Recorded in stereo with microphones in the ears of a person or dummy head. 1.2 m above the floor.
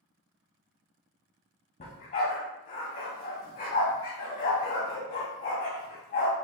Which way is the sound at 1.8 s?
40° left (ahead or behind).